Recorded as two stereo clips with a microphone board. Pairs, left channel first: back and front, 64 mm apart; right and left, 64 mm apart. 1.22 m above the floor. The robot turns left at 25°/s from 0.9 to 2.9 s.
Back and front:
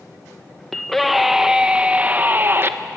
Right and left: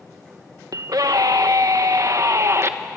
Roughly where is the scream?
Left.